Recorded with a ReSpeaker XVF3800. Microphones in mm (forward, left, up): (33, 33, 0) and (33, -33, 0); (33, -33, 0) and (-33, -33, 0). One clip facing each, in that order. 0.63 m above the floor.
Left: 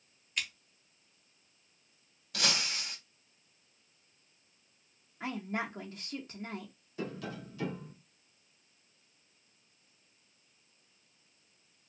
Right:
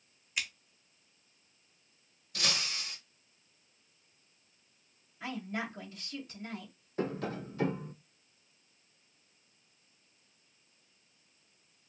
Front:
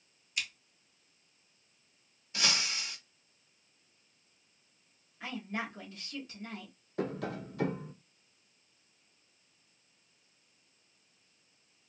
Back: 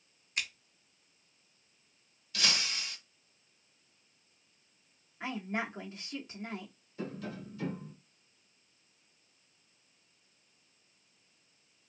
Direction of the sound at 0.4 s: 165° right.